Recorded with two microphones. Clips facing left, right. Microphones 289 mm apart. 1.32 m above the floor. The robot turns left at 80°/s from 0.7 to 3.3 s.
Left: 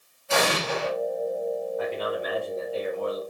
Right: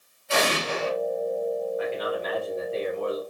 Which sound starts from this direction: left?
An explosion, at 0.3 s.